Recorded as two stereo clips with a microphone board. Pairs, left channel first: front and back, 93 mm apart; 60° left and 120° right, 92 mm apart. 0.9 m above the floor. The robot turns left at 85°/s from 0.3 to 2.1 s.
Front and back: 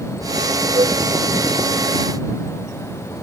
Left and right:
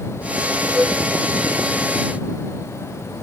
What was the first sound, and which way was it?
A flute, 165° left.